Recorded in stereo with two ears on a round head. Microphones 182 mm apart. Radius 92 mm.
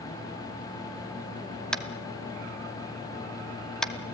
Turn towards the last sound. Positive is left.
turn(degrees=5)  # may be behind; listen again after turning